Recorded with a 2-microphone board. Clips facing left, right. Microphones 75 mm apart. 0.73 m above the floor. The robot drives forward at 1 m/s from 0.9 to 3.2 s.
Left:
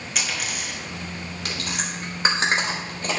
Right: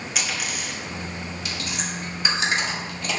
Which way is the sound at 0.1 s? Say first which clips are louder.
Left 1 dB; centre (ahead or behind).